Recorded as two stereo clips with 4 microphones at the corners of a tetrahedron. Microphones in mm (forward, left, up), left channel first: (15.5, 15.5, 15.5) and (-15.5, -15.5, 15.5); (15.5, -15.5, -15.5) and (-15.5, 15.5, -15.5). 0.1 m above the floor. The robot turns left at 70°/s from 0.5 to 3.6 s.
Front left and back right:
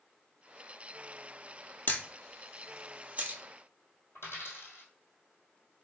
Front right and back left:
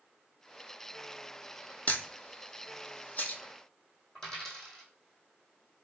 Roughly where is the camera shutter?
Ahead.